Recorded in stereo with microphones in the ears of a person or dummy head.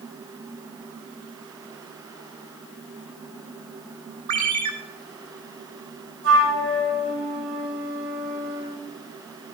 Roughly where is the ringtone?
Right.